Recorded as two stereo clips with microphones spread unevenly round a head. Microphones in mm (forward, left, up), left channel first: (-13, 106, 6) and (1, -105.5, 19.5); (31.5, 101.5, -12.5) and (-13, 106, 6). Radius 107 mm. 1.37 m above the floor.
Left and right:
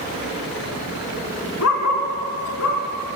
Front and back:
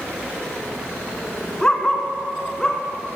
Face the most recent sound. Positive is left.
turn(degrees=80)